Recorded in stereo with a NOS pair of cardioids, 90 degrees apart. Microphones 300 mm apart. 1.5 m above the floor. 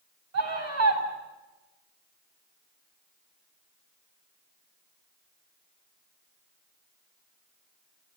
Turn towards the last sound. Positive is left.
turn(degrees=-60)